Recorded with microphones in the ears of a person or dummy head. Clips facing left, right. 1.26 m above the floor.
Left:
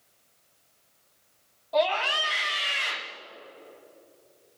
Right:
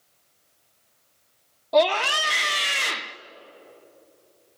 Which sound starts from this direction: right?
A scream, at 1.7 s.